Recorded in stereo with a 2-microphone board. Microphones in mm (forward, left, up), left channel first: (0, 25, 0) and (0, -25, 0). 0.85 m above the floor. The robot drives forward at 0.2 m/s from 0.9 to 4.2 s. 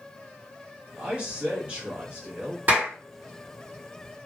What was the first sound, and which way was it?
A man speaking, 25° right (ahead or behind).